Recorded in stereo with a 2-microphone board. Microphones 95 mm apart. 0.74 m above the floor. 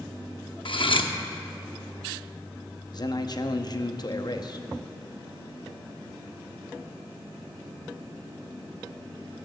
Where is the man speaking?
45° left (ahead or behind), 0.6 m.